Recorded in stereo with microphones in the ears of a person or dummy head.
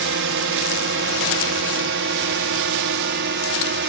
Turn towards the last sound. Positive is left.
turn(degrees=-55)  # may be behind; listen again after turning